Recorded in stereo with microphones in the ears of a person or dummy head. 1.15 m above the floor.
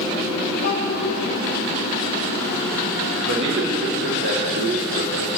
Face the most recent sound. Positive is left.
turn(degrees=-55)  # may be behind; listen again after turning